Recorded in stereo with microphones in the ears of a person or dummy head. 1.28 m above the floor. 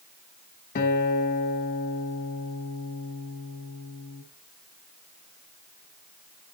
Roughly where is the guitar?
Left.